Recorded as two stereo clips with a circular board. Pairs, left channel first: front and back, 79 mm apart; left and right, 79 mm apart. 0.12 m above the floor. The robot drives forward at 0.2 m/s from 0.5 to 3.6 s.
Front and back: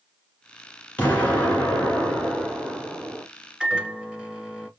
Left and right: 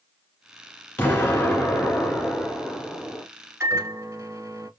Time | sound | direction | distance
1.0 | an explosion | 50° left | 1.5 m
3.6 | a microwave | 105° right | 1.0 m